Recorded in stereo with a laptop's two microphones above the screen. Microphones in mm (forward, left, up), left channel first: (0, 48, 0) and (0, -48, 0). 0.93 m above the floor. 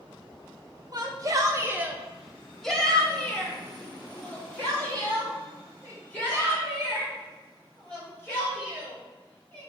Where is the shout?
40° right (ahead or behind), 0.7 m; by 9.7 s 20° left (ahead or behind), 5.5 m.